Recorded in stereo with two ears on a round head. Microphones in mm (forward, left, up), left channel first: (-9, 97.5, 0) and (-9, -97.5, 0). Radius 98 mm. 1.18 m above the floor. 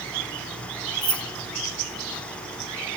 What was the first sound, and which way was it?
Keys jangling, 40° right (ahead or behind).